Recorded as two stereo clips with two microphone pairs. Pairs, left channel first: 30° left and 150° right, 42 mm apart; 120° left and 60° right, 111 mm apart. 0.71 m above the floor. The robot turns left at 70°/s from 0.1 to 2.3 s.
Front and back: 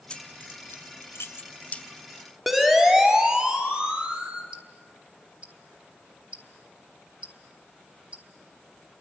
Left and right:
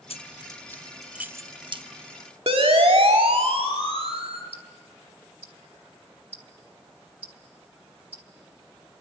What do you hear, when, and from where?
0.1 s keys jangling: 95° left, 0.6 m; by 1.8 s 30° right, 0.6 m
2.5 s a siren: 65° right, 2.5 m; by 4.4 s 85° right, 4 m
4.5 s ticking: 90° right, 1.7 m